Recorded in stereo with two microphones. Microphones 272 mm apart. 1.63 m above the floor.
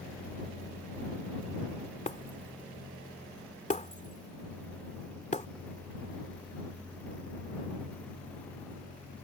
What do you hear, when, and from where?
2.1 s breaking glass: 25° left (ahead or behind)